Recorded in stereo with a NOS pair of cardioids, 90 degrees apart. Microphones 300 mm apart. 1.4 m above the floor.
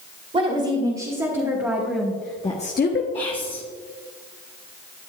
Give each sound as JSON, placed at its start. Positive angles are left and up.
{"t": 0.3, "sound": "a woman speaking", "azimuth_deg": -25, "distance_m": 2.5}
{"t": 3.1, "sound": "whispering", "azimuth_deg": 15, "distance_m": 1.7}